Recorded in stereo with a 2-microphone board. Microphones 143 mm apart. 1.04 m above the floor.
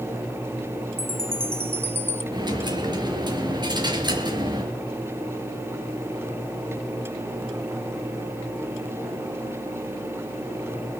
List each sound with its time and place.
1.0 s a chime: 15° right (ahead or behind), 1.4 m
2.3 s a dropped coin: 30° right (ahead or behind), 4.5 m